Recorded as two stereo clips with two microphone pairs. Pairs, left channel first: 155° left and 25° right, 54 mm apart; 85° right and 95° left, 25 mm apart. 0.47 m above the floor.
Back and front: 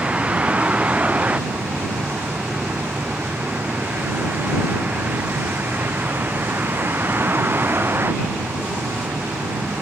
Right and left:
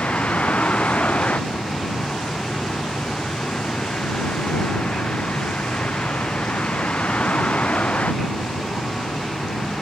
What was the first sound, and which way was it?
A vehicle, 95° right.